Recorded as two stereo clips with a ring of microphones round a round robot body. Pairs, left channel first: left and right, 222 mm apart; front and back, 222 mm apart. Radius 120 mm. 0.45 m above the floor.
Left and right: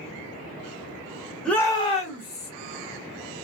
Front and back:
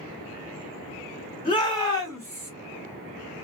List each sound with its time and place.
1.4 s a shout: 5° left, 1.3 m; by 2.5 s 80° left, 1.8 m